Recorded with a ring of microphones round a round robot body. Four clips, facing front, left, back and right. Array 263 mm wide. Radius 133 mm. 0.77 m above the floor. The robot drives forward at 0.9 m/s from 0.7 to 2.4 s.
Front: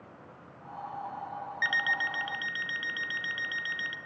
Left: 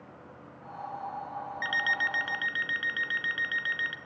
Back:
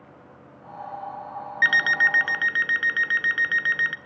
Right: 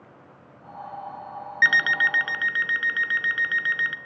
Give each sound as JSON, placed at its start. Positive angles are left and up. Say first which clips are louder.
{"t": 1.6, "sound": "an alarm clock", "louder": "right 10 dB, back 10 dB", "azimuth_deg": -125, "distance_m": 0.6}